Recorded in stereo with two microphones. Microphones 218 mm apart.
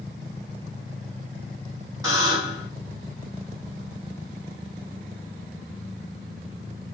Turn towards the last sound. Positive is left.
turn(degrees=-15)  # may be behind; listen again after turning